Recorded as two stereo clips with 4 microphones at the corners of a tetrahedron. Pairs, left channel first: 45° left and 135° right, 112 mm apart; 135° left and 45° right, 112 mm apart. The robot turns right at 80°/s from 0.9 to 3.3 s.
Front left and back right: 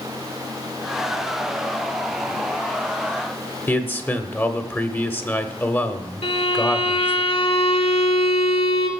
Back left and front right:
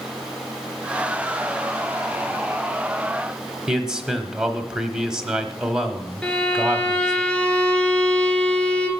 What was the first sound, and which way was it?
A man speaking, 25° left.